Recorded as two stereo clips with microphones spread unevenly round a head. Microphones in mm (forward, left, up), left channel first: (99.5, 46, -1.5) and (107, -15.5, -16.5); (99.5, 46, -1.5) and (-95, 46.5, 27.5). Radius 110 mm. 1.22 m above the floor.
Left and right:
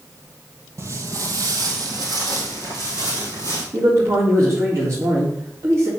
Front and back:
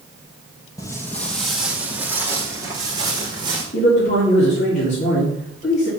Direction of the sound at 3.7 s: 55° right.